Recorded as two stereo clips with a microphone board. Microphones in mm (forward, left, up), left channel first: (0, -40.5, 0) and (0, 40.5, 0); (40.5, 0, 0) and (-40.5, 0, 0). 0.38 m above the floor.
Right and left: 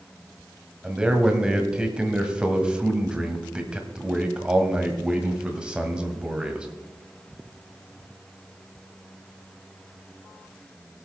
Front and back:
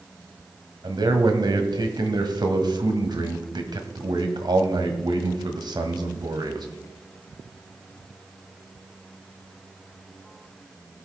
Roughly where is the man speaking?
Behind.